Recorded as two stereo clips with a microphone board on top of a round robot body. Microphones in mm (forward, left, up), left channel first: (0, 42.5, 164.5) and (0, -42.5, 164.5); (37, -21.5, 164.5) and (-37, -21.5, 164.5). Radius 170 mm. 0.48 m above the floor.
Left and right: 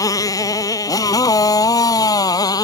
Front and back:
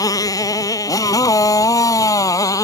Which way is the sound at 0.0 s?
40° left.